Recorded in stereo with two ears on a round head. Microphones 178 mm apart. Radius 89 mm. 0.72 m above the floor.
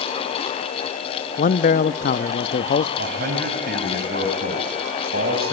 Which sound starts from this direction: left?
A man speaking, at 1.4 s.